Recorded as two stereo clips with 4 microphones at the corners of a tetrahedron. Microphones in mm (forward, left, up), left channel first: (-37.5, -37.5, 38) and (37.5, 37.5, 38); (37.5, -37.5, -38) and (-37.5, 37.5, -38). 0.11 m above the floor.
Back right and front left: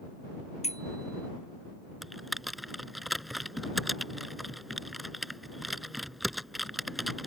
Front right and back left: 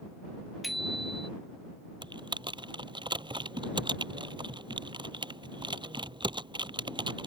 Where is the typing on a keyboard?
135° left.